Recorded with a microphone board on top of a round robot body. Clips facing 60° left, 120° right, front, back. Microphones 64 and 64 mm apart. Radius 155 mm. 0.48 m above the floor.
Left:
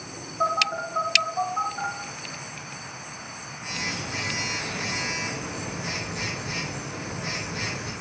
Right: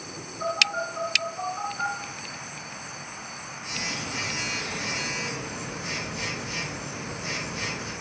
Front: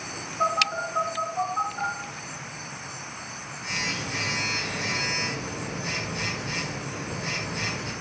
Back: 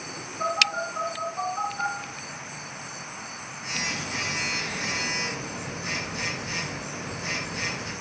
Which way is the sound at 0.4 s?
50° left.